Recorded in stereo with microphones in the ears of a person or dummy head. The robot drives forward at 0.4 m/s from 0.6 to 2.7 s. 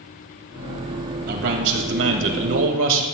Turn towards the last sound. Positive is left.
turn(degrees=-70)  # may be behind; listen again after turning